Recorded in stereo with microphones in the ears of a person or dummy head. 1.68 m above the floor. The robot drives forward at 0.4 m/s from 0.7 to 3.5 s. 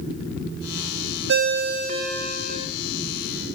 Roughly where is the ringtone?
Right.